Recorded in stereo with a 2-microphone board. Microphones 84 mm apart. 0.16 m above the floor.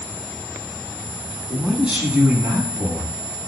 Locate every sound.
1.5 s a man speaking: centre (ahead or behind), 1.3 m; by 3.1 s 40° right (ahead or behind), 1.3 m